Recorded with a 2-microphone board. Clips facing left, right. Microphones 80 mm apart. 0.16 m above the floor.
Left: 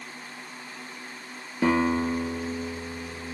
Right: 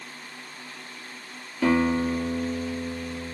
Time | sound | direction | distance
1.6 | a guitar | 25° left (ahead or behind) | 3 m